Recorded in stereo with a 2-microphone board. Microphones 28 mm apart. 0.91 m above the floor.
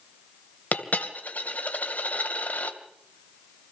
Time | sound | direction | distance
0.7 | a dropped coin | 75° left (ahead or behind) | 2.5 m